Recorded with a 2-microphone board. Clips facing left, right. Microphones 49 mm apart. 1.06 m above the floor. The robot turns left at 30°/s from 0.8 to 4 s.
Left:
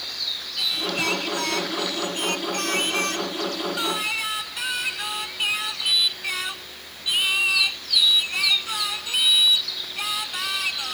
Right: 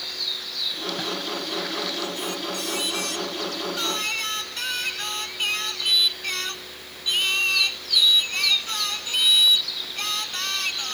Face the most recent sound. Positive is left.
turn(degrees=10)